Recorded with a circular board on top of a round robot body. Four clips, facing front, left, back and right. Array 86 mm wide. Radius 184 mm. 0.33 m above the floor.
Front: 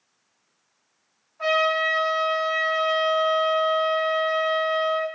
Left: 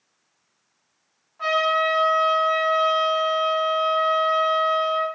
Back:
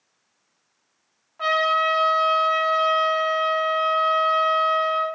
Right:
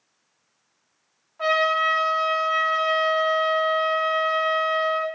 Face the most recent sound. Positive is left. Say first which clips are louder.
# even, back 1 dB
turn(degrees=-165)